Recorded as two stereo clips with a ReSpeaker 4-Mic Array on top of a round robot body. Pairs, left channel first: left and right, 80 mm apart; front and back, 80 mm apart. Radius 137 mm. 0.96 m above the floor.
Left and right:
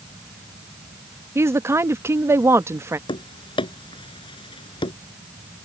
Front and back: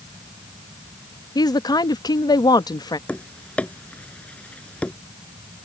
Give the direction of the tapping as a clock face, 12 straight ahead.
10 o'clock.